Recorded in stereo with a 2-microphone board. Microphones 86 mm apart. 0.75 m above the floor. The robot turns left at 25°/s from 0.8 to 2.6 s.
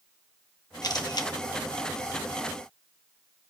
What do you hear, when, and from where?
0.8 s a camera shutter: 50° left (ahead or behind), 0.9 m; by 1.3 s 55° left (ahead or behind), 0.9 m